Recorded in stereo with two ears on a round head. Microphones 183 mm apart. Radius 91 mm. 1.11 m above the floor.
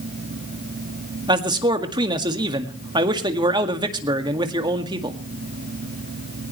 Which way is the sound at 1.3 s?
20° right (ahead or behind).